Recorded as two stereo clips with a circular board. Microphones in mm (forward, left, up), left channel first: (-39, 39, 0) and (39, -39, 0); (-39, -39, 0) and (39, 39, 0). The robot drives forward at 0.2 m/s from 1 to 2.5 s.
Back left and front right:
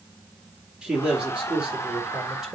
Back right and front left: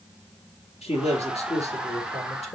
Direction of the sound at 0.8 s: 125° right.